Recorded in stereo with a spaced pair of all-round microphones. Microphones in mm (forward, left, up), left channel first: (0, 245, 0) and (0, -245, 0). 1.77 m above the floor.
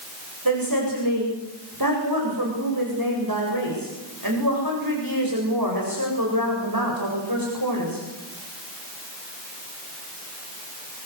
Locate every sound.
0.5 s a woman speaking: 45° right (ahead or behind), 7.5 m